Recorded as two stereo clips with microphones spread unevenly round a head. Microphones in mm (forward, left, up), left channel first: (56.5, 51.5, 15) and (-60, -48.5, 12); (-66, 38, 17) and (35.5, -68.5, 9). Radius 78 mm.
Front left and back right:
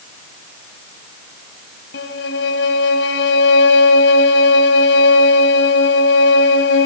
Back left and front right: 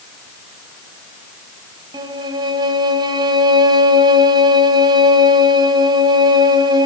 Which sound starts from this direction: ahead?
A violin, at 1.9 s.